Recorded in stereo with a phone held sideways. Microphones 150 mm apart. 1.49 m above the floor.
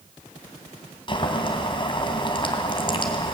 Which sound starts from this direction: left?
Boiling, at 1.1 s.